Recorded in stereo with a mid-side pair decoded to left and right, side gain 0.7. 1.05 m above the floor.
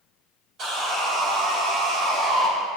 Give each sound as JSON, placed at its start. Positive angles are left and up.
{"t": 0.6, "sound": "sawing", "azimuth_deg": -45, "distance_m": 3.0}